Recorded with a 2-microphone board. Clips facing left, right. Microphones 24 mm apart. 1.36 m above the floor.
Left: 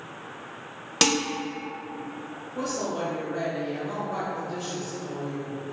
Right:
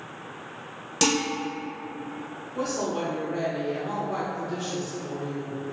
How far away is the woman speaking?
About 1.5 m.